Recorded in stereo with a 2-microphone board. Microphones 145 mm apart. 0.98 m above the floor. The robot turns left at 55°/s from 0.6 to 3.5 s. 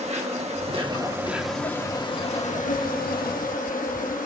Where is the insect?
130° right, 1.3 m; by 4.3 s 70° left, 1.3 m.